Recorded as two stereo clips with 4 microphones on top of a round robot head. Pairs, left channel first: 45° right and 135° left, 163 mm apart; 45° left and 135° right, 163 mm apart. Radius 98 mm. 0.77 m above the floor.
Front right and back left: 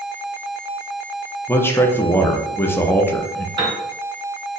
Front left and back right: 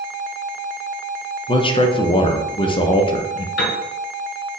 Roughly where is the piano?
Left.